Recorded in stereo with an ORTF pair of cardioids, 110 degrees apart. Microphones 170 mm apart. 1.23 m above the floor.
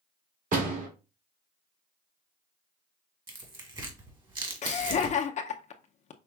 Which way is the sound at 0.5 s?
45° right.